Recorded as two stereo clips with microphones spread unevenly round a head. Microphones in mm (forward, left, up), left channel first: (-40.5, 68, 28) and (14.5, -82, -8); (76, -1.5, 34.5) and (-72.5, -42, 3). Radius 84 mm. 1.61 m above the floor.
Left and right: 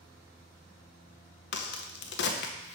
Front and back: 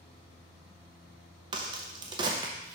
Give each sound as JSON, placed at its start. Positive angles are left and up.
{"t": 1.5, "sound": "a crack", "azimuth_deg": 130, "distance_m": 0.7}